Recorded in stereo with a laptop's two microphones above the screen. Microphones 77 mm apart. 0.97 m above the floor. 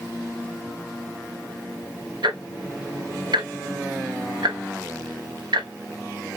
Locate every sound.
2.2 s ticking: 70° right (ahead or behind), 1.2 m